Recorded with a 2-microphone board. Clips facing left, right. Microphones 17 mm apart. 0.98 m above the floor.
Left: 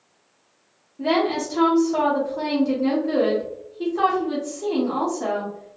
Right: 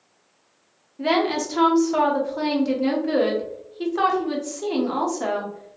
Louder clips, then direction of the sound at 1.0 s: Even; 30° right (ahead or behind).